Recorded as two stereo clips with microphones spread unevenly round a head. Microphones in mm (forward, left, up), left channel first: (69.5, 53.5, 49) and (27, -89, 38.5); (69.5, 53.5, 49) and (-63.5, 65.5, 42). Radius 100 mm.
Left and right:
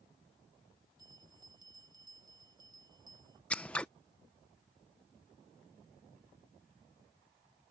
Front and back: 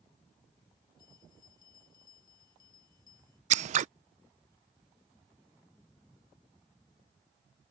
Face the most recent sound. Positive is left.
turn(degrees=155)